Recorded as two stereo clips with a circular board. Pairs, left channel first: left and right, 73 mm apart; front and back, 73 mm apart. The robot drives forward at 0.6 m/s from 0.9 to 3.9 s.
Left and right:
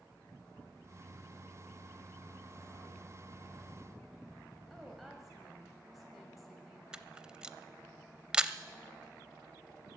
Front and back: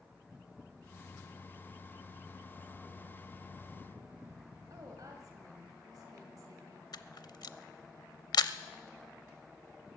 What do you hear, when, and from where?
4.7 s a woman speaking: straight behind, 1.8 m
6.9 s a camera shutter: 10° right, 0.5 m